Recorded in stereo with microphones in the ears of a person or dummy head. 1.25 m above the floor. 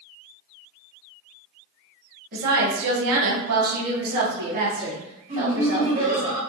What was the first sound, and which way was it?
A woman speaking, 50° right (ahead or behind).